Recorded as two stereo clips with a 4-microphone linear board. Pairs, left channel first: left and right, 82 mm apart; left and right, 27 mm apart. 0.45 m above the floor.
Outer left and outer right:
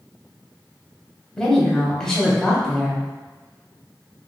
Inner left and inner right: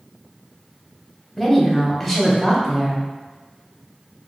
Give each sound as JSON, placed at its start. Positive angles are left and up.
{"t": 1.4, "sound": "a woman speaking", "side_deg": 10, "distance_m": 0.8}